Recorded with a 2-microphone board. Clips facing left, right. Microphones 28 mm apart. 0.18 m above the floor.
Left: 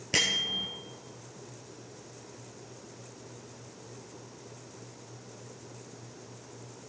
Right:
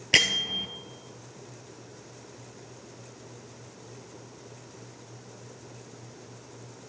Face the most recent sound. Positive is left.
turn(degrees=-75)  # may be behind; listen again after turning